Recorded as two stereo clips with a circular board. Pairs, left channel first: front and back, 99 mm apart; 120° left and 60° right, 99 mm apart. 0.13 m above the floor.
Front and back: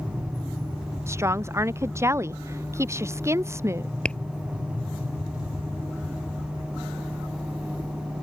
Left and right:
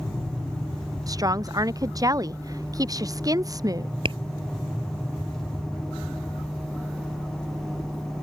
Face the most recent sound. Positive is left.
turn(degrees=-80)